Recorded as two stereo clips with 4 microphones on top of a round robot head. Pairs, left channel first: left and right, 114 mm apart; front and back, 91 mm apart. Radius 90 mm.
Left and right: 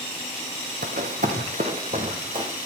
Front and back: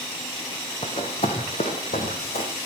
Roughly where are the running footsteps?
Ahead right.